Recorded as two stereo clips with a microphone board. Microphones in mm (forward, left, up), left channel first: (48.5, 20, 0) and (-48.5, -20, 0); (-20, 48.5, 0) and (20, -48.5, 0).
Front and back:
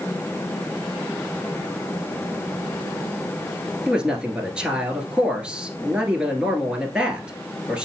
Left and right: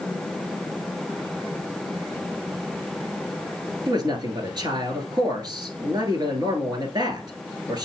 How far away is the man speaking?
About 1.5 m.